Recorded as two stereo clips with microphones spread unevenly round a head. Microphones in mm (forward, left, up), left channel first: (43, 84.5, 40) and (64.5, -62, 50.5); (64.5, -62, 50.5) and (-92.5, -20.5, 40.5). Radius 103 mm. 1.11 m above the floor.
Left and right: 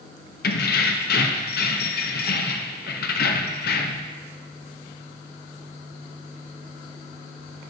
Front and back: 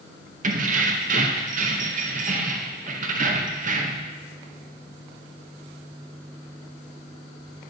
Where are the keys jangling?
120° left, 0.7 m.